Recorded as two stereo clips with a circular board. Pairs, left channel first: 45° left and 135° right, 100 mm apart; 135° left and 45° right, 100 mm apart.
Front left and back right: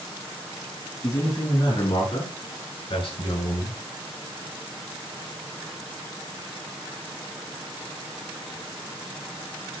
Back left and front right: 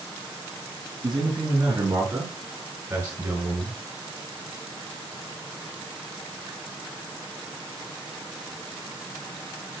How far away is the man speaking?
About 8.5 m.